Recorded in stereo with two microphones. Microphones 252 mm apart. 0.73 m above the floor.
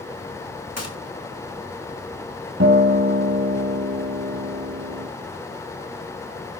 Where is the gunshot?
80° left, 2.5 m.